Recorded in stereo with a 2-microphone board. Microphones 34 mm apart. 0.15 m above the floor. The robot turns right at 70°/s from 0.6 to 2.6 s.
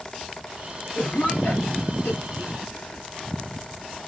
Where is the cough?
10° left (ahead or behind), 3 m; by 3.0 s 45° left (ahead or behind), 3 m.